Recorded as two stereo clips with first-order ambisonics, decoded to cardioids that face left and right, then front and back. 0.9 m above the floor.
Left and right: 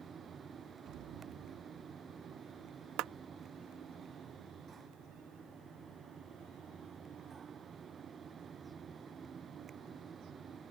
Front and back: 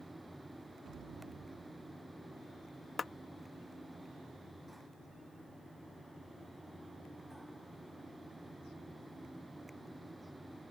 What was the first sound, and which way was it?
An explosion, 125° right.